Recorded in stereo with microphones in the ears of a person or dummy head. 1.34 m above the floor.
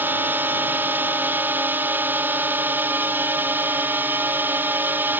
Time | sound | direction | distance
0.0 | a drone | 10° right (ahead or behind) | ?